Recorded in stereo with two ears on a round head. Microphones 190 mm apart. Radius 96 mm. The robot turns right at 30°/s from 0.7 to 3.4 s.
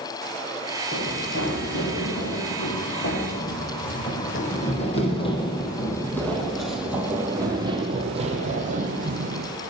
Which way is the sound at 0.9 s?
40° left (ahead or behind).